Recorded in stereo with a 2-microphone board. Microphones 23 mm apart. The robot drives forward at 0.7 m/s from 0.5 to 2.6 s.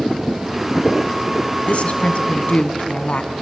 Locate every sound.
1.7 s a woman speaking: 60° left (ahead or behind), 2.0 m; by 3.3 s 55° left (ahead or behind), 2 m